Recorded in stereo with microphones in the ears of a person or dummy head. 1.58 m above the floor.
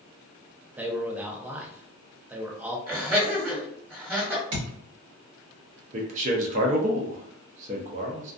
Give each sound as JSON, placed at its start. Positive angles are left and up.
{"t": 0.8, "sound": "a man speaking", "side_deg": -15, "distance_m": 0.6}
{"t": 2.9, "sound": "laughter", "side_deg": -10, "distance_m": 1.7}
{"t": 4.5, "sound": "a thud", "side_deg": -40, "distance_m": 1.5}
{"t": 5.9, "sound": "a man speaking", "side_deg": -40, "distance_m": 0.6}